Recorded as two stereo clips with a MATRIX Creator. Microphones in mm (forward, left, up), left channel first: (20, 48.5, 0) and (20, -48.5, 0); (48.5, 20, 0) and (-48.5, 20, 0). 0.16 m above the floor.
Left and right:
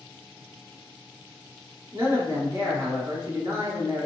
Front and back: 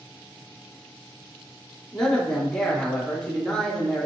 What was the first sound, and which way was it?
A man speaking, 85° right.